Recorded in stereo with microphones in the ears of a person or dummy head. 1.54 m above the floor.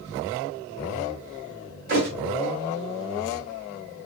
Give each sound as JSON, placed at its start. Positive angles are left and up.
{"t": 1.9, "sound": "a thud", "side_deg": -40, "distance_m": 1.5}